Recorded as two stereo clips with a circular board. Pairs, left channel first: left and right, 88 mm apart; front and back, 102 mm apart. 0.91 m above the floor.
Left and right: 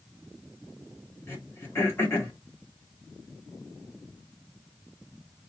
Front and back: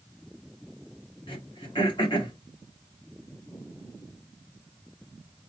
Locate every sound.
1.3 s throat clearing: 30° left, 1.5 m